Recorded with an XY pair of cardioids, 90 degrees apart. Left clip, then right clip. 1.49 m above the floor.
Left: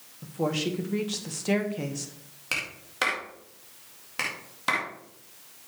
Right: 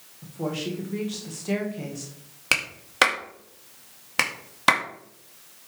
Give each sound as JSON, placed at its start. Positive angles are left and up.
{"t": 0.2, "sound": "a woman speaking", "azimuth_deg": 40, "distance_m": 1.9}
{"t": 2.5, "sound": "a clap", "azimuth_deg": -70, "distance_m": 2.0}